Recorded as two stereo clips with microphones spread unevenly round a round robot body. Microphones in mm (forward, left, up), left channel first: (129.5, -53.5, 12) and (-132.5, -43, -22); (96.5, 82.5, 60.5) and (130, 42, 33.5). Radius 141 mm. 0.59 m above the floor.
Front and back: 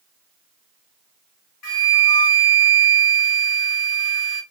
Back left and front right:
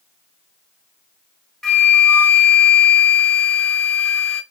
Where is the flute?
40° left, 3 m.